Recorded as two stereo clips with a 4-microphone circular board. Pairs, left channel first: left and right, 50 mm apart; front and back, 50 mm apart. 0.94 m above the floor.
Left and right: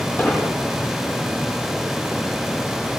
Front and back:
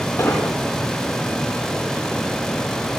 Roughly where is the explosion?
Ahead left.